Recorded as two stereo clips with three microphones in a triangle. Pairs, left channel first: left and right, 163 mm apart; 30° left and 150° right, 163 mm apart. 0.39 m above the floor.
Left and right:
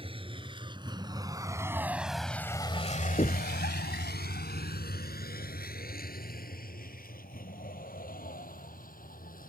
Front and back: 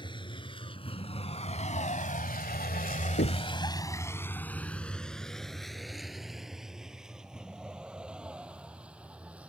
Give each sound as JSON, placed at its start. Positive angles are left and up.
{"t": 0.0, "sound": "a vehicle", "azimuth_deg": -35}
{"t": 3.2, "sound": "knocking", "azimuth_deg": 35}